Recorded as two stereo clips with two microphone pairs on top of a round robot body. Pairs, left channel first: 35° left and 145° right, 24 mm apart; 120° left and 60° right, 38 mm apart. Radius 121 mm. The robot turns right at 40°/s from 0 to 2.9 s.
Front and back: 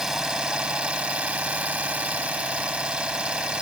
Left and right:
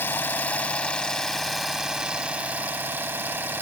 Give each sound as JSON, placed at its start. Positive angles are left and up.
{"t": 0.0, "sound": "an engine running", "azimuth_deg": 145}